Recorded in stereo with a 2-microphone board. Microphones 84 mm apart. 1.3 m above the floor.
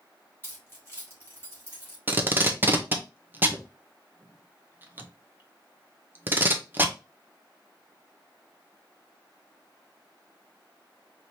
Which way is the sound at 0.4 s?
25° left (ahead or behind).